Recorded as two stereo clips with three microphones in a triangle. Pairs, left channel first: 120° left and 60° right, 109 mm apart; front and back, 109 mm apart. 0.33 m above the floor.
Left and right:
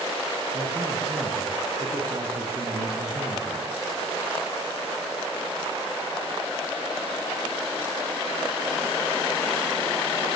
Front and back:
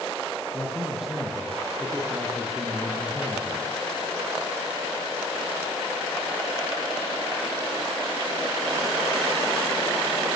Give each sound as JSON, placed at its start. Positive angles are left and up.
{"t": 0.5, "sound": "a man speaking", "azimuth_deg": -95, "distance_m": 5.0}